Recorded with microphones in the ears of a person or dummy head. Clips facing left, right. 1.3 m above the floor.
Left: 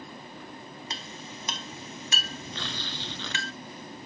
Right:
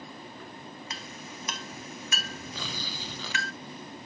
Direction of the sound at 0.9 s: 25° left (ahead or behind).